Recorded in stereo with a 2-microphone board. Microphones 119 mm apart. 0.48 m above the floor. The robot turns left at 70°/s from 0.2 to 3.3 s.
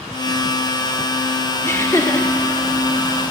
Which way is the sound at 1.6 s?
20° left (ahead or behind).